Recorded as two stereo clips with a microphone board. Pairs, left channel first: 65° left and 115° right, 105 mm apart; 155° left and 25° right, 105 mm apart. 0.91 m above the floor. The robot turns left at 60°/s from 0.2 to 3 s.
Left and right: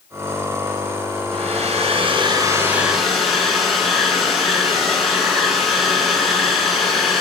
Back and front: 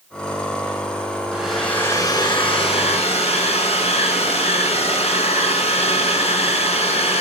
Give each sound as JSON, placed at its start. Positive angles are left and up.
{"t": 1.3, "sound": "a hair dryer", "azimuth_deg": -100, "distance_m": 6.5}